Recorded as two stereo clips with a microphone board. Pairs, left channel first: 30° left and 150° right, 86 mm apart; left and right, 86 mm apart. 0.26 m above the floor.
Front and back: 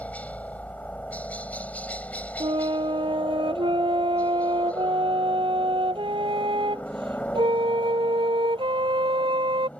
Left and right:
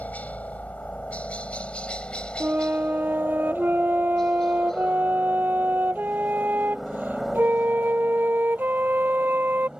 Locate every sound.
0.0 s a helicopter: 65° left; by 9.8 s 20° right
2.4 s a flute: 160° right